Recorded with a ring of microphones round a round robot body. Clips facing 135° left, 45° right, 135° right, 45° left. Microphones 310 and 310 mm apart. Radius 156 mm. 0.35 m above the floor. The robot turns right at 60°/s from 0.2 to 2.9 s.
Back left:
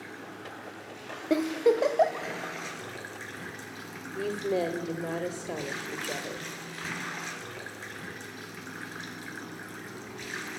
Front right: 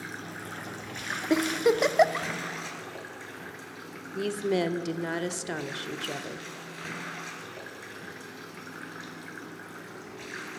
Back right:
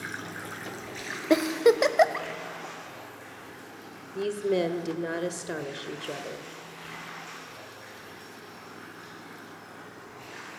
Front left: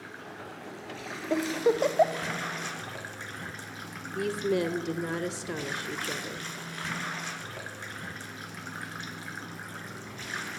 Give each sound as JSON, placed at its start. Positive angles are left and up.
{"t": 0.0, "sound": "running water", "azimuth_deg": -105, "distance_m": 1.3}
{"t": 1.3, "sound": "a giggle", "azimuth_deg": -125, "distance_m": 0.9}
{"t": 4.2, "sound": "a woman speaking", "azimuth_deg": -30, "distance_m": 1.2}